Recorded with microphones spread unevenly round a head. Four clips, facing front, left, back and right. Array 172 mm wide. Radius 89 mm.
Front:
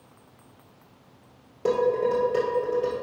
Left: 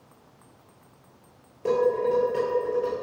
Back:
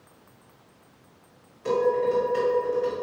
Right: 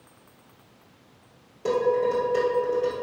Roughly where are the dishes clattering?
Ahead.